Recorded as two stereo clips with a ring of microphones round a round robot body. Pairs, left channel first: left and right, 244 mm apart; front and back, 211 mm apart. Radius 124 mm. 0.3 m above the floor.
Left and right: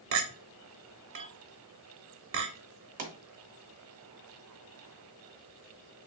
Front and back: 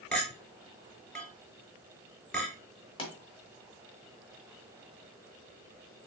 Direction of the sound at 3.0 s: 55° right.